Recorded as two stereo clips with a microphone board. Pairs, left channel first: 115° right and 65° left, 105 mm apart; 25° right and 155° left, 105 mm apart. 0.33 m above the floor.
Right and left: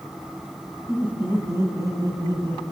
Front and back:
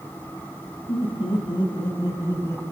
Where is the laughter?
15° right, 3.5 m; by 2.6 s 40° left, 3 m.